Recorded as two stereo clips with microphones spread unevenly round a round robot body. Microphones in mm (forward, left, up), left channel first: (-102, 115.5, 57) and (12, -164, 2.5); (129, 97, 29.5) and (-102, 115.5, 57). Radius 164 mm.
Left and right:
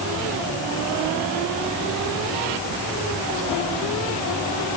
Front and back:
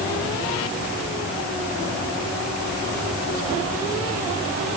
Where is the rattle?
I don't hear a rattle.